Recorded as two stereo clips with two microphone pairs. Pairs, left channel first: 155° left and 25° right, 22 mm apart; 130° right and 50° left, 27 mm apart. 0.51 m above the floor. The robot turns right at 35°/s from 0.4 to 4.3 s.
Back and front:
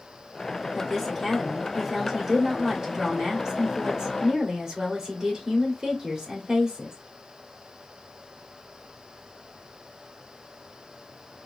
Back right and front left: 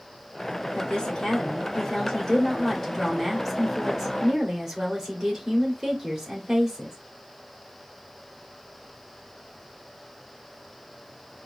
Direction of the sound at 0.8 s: 140° right.